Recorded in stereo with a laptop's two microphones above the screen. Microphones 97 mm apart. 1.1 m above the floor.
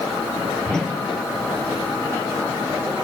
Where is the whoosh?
10° left (ahead or behind), 1.7 m.